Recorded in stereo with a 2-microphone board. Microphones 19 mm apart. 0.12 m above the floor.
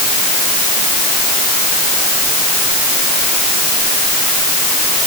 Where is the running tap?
I don't hear a running tap.